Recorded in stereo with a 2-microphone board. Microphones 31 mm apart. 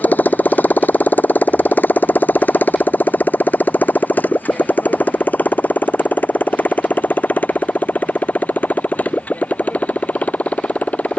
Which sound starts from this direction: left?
A motorcycle, at 0.0 s.